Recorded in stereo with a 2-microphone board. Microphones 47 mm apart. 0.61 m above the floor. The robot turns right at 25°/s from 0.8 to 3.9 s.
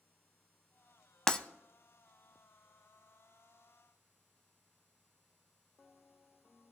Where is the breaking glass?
15° left (ahead or behind), 0.6 m.